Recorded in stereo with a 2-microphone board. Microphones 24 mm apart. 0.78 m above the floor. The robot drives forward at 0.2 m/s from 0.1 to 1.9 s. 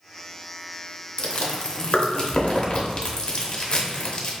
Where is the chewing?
55° left (ahead or behind), 0.7 m; by 4.3 s 45° left (ahead or behind), 0.7 m.